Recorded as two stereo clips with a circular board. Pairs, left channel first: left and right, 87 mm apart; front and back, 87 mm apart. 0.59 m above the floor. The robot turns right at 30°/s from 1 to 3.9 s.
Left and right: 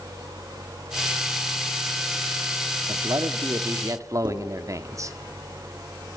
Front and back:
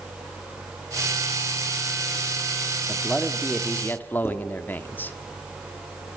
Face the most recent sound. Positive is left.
turn(degrees=-65)